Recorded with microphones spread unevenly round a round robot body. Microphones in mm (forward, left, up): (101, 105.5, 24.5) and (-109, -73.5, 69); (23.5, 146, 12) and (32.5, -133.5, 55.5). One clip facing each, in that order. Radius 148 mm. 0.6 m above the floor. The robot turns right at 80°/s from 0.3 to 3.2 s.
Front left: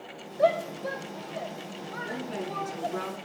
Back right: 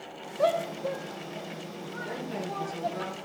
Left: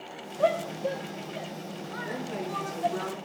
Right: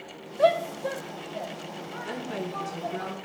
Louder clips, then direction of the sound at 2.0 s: Front left 1 dB, right 1 dB; 65° right.